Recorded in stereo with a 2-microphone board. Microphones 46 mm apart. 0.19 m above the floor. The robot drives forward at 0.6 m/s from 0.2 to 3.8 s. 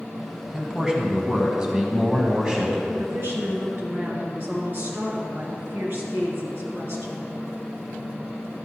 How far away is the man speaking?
About 1.6 m.